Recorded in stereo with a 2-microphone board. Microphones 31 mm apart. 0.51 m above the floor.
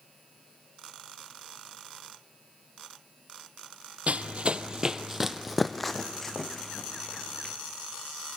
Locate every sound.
4.1 s running footsteps: 50° right (ahead or behind), 0.7 m; by 7.5 s 20° left (ahead or behind), 2 m